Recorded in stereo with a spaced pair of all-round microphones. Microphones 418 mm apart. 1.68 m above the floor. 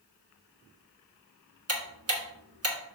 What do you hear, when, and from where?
1.7 s ticking: 35° right (ahead or behind), 1.3 m